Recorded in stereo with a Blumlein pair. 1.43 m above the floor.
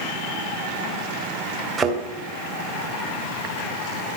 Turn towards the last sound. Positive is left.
turn(degrees=-10)